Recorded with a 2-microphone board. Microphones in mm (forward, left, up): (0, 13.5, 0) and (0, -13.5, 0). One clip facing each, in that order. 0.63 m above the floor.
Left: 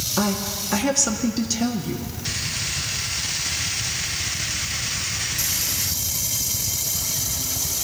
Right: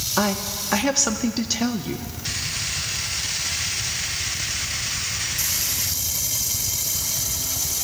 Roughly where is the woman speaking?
Right.